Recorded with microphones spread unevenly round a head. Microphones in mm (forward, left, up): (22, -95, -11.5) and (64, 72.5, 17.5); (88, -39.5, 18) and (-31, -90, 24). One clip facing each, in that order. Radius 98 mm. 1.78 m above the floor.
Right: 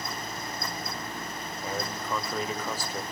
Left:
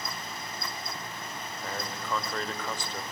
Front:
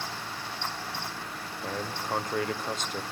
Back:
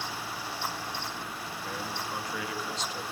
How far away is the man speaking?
About 1.2 m.